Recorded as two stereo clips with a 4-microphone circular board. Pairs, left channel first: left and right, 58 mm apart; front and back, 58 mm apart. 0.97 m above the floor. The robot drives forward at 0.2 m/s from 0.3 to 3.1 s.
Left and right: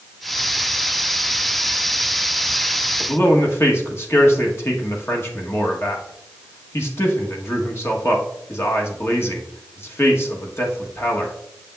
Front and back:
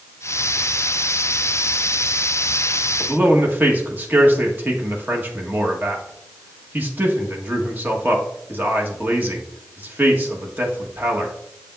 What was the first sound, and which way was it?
A man speaking, 125° left.